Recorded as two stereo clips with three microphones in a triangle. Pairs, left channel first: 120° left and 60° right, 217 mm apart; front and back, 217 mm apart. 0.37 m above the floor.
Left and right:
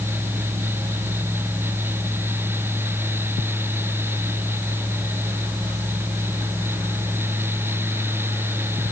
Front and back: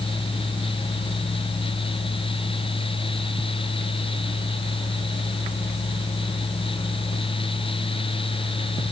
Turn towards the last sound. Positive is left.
No sound to turn to.